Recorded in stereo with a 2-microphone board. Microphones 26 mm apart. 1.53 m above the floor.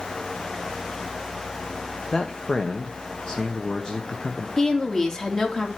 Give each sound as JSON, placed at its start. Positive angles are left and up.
{"t": 2.1, "sound": "a man speaking", "side_deg": 30, "distance_m": 1.0}
{"t": 4.6, "sound": "a woman speaking", "side_deg": 20, "distance_m": 2.5}